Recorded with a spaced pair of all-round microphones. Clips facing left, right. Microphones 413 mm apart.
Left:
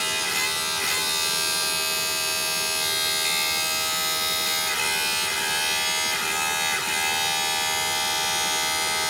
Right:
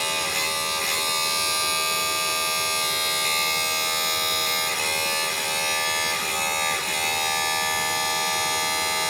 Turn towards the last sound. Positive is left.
turn(degrees=30)  # may be behind; listen again after turning